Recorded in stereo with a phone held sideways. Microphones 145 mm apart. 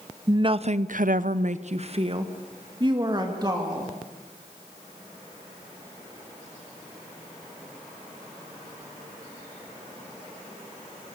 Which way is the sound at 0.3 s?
30° right (ahead or behind).